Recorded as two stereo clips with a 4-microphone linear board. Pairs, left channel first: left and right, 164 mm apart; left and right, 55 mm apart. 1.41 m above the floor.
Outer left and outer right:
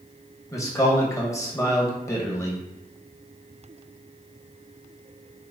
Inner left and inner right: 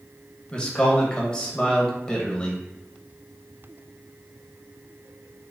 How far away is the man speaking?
About 1.1 m.